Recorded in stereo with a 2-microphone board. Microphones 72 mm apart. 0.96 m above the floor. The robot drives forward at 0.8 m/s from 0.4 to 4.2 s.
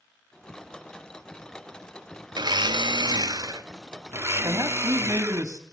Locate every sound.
2.3 s a blender: 70° right (ahead or behind), 1.0 m; by 5.4 s 40° right (ahead or behind), 1.5 m
4.4 s a man speaking: 50° right (ahead or behind), 2.5 m